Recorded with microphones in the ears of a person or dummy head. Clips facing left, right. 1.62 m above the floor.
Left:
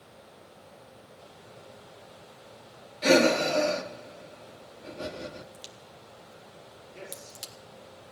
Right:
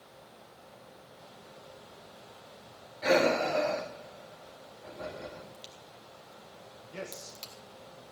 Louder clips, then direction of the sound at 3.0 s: Left 4 dB; 35° left (ahead or behind).